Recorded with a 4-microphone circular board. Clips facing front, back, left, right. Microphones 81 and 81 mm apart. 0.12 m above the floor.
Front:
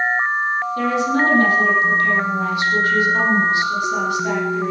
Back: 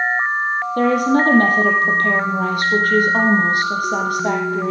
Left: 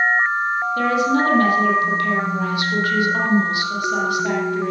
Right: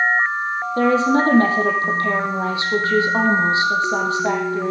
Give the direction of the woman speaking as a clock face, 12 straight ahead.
5 o'clock.